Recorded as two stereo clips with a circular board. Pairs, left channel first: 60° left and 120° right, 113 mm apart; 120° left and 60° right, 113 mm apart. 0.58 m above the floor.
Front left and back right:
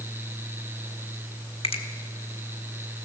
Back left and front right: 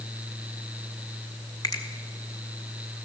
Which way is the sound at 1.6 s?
75° left.